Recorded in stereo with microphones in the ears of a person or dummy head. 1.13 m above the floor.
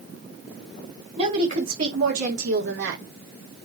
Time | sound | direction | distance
1.2 | a woman speaking | 45° right (ahead or behind) | 4.5 m